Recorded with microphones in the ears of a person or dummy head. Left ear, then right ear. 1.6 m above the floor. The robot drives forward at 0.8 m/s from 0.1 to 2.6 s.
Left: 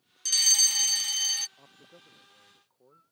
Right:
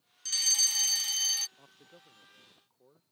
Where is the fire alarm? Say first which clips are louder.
Left 5 dB; 15° left (ahead or behind); by 1.5 s 5° left (ahead or behind).